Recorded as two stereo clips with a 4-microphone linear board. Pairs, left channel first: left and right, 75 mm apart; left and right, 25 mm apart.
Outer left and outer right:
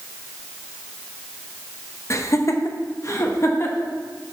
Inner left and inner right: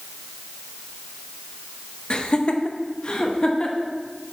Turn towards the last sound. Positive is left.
turn(degrees=35)  # may be behind; listen again after turning